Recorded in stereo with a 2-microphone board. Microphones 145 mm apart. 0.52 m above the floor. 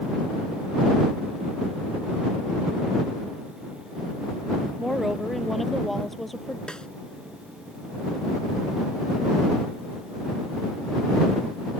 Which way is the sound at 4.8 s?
Centre (ahead or behind).